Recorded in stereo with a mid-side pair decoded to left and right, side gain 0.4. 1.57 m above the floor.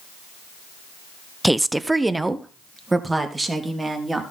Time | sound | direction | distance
1.4 | a woman speaking | 5° right | 0.6 m